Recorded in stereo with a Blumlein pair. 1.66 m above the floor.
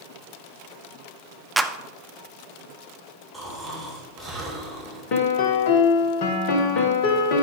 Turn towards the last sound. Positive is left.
turn(degrees=45)